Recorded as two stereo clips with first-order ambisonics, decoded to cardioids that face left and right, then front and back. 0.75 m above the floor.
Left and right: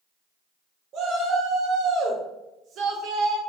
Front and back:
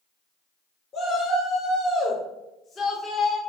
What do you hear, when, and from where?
0.9 s a shout: 60° right, 0.8 m